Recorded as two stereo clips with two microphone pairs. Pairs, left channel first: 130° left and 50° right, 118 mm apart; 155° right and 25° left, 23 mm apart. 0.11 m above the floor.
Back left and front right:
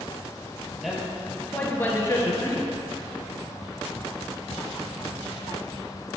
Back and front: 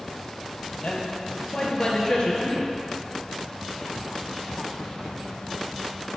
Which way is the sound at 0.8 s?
135° right.